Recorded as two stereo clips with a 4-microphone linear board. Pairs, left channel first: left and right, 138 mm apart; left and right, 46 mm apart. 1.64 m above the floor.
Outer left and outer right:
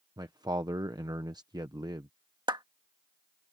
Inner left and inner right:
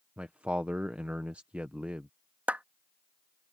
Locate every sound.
0.2 s a man speaking: 30° right (ahead or behind)
2.5 s a clap: 35° right (ahead or behind)